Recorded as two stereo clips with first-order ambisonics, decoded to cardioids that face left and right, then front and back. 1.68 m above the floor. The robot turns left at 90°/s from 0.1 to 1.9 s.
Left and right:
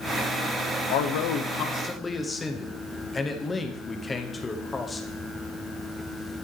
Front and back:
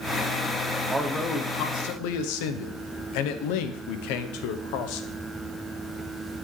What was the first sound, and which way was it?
A man speaking, 105° left.